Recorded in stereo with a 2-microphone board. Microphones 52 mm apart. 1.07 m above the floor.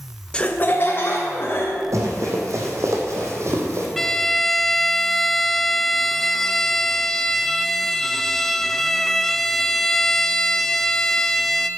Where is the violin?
5° left (ahead or behind), 0.5 m.